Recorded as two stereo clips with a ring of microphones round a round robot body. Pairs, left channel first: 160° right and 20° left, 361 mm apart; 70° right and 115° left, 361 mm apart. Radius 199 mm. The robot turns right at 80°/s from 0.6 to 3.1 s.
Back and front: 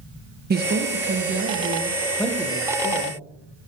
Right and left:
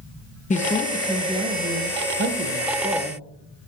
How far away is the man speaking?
About 0.8 m.